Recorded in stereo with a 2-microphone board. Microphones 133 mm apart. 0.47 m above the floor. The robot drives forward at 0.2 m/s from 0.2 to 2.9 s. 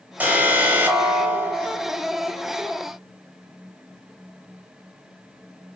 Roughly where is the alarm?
Centre.